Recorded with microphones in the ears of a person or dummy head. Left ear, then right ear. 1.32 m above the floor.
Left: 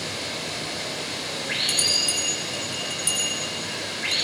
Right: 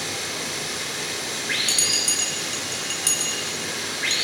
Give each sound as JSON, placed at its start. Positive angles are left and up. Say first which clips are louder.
{"t": 0.0, "sound": "running water", "louder": "right 2 dB", "side_deg": -40, "distance_m": 5.0}
{"t": 1.7, "sound": "a bell", "louder": "left 1 dB", "side_deg": -85, "distance_m": 8.0}